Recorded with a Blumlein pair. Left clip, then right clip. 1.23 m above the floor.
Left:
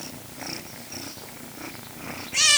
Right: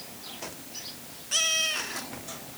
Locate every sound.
Only background noise.